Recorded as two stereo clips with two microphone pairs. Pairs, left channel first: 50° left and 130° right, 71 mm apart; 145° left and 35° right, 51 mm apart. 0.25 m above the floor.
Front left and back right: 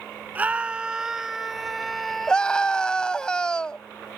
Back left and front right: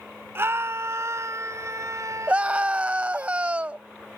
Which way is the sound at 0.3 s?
65° right.